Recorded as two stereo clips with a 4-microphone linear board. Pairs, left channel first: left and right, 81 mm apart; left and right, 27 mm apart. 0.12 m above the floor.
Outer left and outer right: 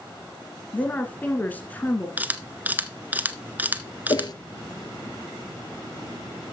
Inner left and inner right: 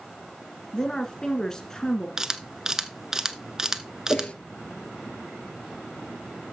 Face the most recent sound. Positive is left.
turn(degrees=55)  # may be behind; listen again after turning